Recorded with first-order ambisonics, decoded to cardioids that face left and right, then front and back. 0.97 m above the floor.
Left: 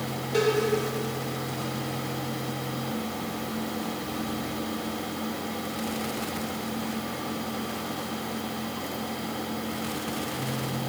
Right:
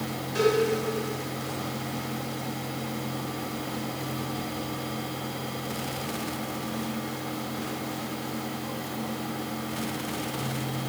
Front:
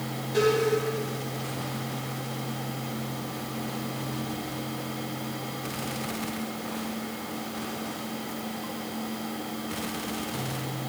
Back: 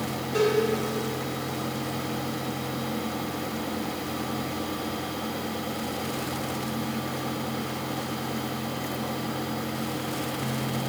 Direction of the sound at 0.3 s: 95° left.